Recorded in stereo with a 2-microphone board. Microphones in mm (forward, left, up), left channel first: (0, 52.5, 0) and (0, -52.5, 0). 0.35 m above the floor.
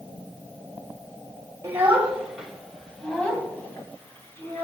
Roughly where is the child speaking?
Right.